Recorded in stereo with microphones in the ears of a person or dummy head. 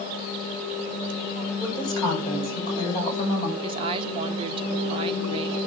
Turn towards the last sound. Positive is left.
turn(degrees=-30)  # may be behind; listen again after turning